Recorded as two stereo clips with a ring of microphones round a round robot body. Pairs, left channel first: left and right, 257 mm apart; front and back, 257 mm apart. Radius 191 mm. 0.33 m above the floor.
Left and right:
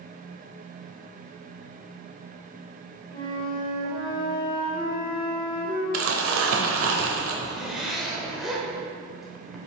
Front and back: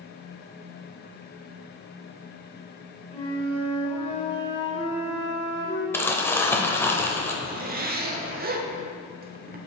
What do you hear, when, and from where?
3.1 s a flute: 40° left, 1.5 m
5.9 s crumpling: 80° right, 1.1 m
7.4 s a zipper: straight behind, 0.8 m